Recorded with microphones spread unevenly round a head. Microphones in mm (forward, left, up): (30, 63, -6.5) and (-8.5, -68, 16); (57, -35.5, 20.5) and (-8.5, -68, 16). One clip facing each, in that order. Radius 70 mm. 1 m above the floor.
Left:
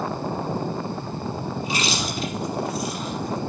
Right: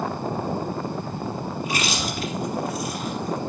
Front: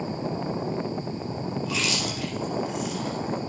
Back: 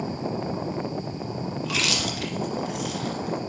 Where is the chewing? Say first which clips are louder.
Even, back 2 dB; 140° right, 2 m.